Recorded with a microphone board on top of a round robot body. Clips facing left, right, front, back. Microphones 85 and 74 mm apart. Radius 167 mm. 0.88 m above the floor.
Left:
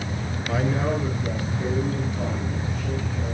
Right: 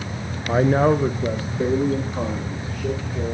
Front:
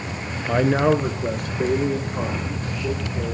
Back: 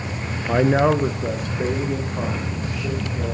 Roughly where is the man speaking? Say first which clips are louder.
Right 8 dB, back 1 dB; right.